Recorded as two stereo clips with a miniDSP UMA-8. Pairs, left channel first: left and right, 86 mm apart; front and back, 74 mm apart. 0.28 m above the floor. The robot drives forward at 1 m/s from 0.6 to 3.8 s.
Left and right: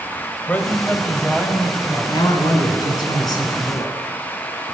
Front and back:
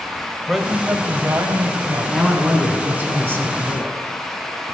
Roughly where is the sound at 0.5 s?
Left.